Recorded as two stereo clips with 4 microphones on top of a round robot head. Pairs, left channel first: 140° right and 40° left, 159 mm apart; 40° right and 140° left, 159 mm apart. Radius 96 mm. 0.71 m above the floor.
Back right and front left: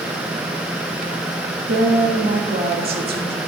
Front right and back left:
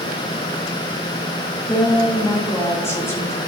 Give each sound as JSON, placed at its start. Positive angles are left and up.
{"t": 1.7, "sound": "a woman speaking", "azimuth_deg": 30, "distance_m": 2.0}